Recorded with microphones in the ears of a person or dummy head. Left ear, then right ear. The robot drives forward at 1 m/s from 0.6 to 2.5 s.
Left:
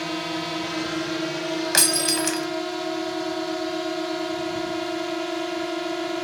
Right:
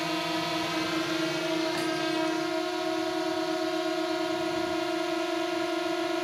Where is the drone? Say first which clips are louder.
Left 1 dB; 5° right (ahead or behind).